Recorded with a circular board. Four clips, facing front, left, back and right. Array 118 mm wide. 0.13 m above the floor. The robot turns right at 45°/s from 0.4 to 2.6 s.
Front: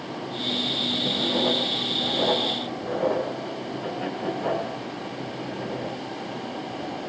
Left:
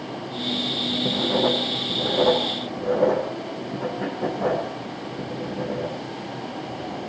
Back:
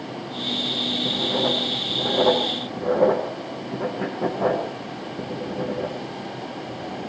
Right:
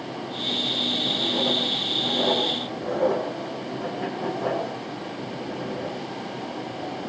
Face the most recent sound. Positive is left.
turn(degrees=165)